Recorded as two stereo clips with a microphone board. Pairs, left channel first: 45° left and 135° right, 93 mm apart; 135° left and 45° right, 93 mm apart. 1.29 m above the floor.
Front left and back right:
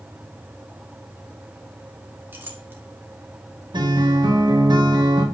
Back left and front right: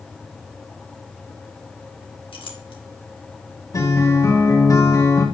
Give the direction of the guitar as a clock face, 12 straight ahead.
6 o'clock.